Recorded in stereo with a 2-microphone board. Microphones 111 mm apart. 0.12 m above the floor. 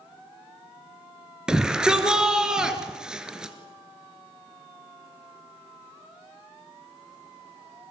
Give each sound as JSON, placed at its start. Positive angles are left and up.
{"t": 1.5, "sound": "a shout", "side_deg": -5, "distance_m": 2.5}